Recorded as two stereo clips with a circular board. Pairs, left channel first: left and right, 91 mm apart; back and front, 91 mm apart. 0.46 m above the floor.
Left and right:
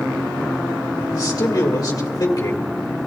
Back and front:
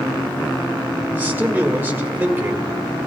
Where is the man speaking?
60° left, 1.9 m.